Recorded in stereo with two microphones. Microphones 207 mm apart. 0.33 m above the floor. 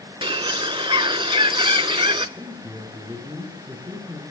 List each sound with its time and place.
0.2 s a bird: 25° right (ahead or behind), 0.5 m
2.4 s a man speaking: 15° right (ahead or behind), 6.5 m